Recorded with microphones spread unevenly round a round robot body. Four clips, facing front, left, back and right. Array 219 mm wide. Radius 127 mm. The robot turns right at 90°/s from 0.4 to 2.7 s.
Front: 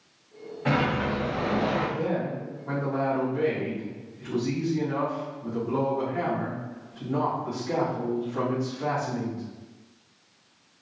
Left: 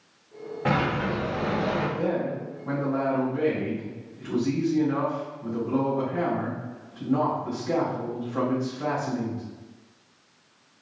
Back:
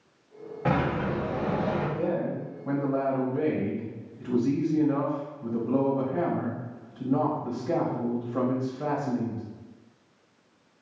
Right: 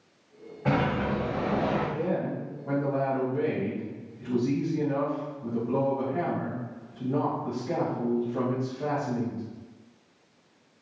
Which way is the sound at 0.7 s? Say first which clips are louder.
Left 1 dB, front 1 dB; 145° left.